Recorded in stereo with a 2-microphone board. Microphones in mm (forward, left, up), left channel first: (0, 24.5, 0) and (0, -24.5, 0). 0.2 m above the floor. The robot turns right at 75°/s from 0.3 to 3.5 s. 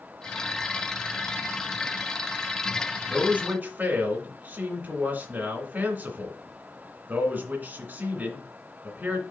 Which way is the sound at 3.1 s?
15° right (ahead or behind).